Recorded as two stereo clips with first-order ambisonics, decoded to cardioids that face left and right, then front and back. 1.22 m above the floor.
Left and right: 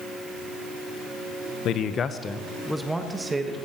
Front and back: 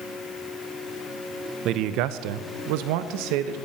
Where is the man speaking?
135° left, 0.7 m; by 3.6 s 165° right, 1.4 m.